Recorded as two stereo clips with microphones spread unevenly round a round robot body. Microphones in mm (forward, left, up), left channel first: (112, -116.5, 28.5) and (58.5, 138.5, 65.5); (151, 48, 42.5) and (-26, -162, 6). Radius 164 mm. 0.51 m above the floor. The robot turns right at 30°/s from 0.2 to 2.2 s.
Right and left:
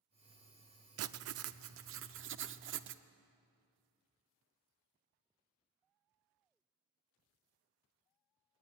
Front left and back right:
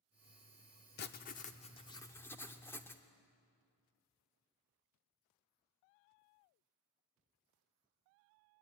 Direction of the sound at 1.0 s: 100° left.